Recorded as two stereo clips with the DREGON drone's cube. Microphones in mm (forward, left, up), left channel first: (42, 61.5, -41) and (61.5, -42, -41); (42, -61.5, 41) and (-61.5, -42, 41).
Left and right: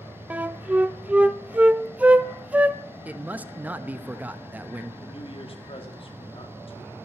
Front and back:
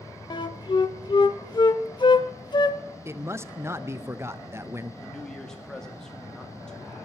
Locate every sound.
0.3 s a flute: 5° right, 0.6 m
3.0 s a man speaking: 140° right, 0.7 m
5.0 s a man speaking: 75° left, 1.9 m